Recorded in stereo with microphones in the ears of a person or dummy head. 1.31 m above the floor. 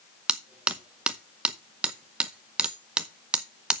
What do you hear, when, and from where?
0.3 s hammering: 5° right (ahead or behind), 0.6 m